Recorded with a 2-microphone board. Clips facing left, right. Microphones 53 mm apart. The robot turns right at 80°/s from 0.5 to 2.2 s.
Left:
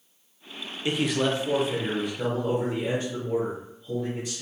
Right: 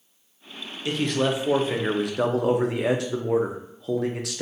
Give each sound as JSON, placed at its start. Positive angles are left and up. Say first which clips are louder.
{"t": 0.8, "sound": "a man speaking", "louder": "right 1 dB", "azimuth_deg": 155, "distance_m": 0.5}